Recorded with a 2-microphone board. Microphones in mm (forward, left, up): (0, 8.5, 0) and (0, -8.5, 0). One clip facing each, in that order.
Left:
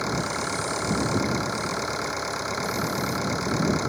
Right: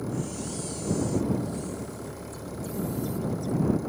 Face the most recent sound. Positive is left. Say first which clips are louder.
# left 6 dB
turn(degrees=70)  # may be behind; listen again after turning